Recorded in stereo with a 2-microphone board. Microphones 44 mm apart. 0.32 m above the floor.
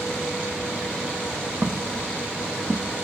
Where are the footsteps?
80° right, 1.7 m.